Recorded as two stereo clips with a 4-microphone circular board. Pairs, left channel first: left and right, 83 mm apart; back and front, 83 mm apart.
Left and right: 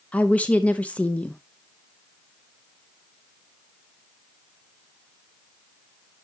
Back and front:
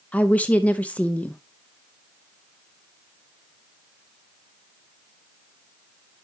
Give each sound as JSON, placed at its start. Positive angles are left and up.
{"t": 0.1, "sound": "a woman speaking", "azimuth_deg": 135, "distance_m": 0.8}